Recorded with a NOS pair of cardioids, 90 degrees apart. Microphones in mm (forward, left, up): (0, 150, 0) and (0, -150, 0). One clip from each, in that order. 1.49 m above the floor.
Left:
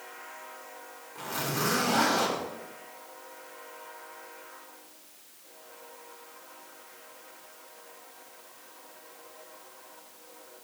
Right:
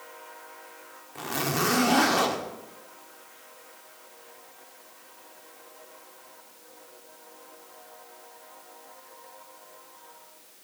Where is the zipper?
40° right, 1.0 m.